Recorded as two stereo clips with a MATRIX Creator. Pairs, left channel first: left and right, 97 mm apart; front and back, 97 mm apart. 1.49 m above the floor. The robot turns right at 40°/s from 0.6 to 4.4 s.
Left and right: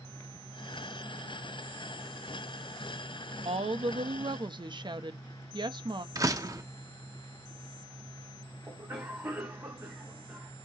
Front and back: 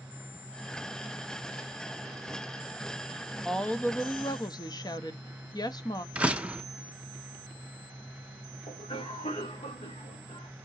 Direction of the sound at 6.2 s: 110° right.